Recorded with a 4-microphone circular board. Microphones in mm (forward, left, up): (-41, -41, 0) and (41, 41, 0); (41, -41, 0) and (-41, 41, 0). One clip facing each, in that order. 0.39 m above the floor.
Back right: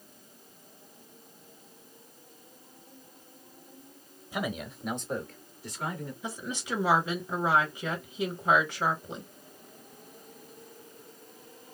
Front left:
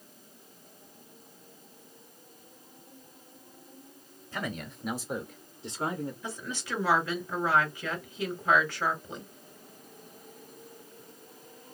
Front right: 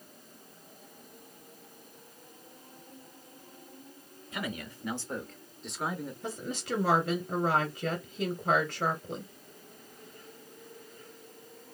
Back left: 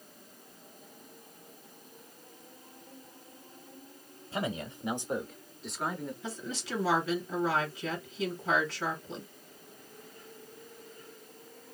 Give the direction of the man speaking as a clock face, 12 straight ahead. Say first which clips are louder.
Back right 3 dB, back left 3 dB; 7 o'clock.